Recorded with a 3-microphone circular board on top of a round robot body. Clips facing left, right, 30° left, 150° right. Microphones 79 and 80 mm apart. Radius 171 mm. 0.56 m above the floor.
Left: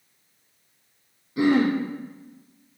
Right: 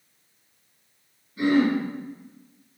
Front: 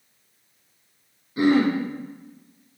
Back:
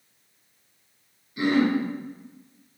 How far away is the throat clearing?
About 0.7 m.